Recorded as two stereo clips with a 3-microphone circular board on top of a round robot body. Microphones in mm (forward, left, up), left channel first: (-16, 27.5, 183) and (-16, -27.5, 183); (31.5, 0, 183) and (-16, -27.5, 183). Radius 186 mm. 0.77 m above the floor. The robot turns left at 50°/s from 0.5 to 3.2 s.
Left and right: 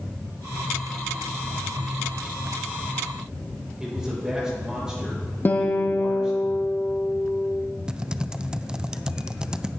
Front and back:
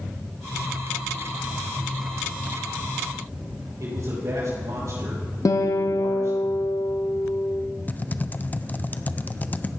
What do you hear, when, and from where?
3.8 s a man speaking: 170° right, 6 m
5.5 s a guitar: 40° left, 1.0 m
7.9 s typing on a keyboard: 20° right, 0.6 m